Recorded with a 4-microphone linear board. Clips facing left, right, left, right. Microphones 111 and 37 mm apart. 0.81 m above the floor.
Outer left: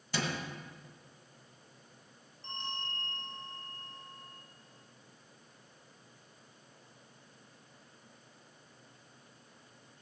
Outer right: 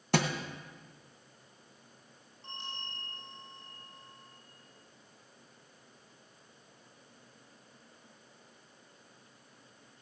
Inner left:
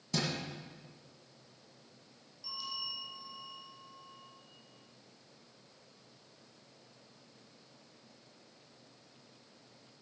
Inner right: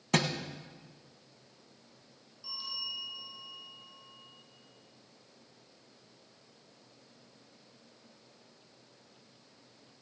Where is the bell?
15° right (ahead or behind), 6.5 m.